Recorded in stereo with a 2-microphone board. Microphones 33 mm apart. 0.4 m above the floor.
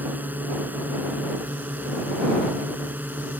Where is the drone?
60° right (ahead or behind).